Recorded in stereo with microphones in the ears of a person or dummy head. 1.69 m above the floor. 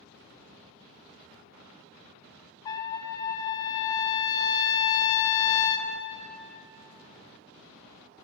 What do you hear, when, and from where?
2.6 s a trumpet: 25° left (ahead or behind), 0.5 m